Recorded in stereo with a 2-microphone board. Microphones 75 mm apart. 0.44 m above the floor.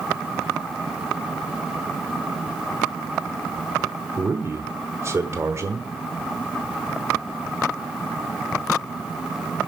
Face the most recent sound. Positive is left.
turn(degrees=-35)  # may be behind; listen again after turning